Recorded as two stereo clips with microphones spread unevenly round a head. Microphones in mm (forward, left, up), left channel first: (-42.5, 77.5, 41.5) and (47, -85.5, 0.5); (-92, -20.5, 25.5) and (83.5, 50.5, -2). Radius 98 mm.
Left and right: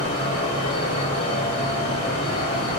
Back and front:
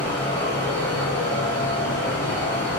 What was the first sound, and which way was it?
A fan, 125° left.